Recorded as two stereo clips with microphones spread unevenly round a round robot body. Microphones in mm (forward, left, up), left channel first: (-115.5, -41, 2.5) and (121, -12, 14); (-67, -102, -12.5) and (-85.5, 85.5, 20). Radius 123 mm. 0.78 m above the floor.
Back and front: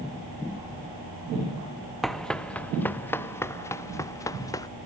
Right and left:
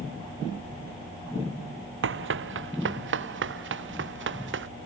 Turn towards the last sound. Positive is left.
turn(degrees=110)